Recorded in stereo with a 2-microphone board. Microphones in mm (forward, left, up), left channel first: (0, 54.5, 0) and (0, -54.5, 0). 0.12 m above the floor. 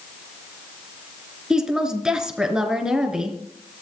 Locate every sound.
1.5 s a woman speaking: 5° right (ahead or behind), 1.3 m